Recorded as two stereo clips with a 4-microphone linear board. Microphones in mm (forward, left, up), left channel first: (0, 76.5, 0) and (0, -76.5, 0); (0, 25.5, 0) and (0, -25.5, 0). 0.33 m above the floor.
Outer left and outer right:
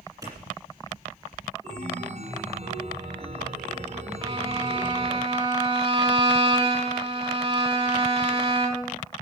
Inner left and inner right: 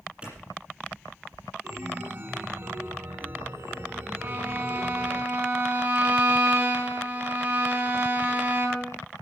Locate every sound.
0.2 s a clap: 20° right (ahead or behind), 6.5 m
1.6 s a chime: 45° right (ahead or behind), 1.4 m
4.2 s a violin: 30° right (ahead or behind), 3.5 m